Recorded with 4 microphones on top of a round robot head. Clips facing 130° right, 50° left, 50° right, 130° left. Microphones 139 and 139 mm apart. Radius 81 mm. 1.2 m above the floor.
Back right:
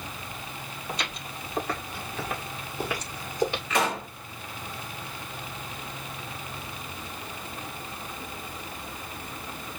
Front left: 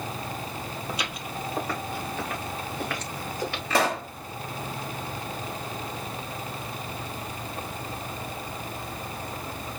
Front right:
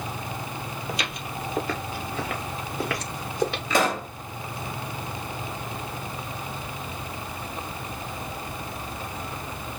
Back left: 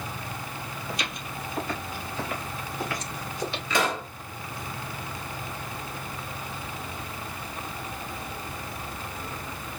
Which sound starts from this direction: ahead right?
Footsteps, at 0.9 s.